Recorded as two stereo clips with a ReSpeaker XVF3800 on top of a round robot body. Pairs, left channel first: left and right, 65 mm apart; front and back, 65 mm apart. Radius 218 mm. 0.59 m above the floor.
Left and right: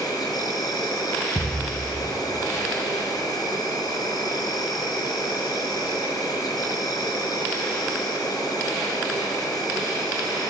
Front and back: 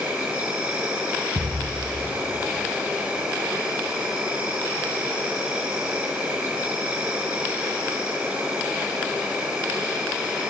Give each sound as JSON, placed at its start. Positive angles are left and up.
{"t": 0.0, "sound": "an insect", "azimuth_deg": 110, "distance_m": 3.5}
{"t": 1.4, "sound": "a thud", "azimuth_deg": 175, "distance_m": 0.8}